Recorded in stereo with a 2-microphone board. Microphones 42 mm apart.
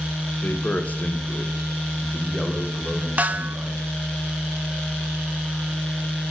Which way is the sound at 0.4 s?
45° left (ahead or behind).